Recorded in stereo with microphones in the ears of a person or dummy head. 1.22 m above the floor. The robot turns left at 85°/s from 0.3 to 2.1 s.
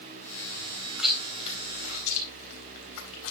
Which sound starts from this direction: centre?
Chewing, at 1.0 s.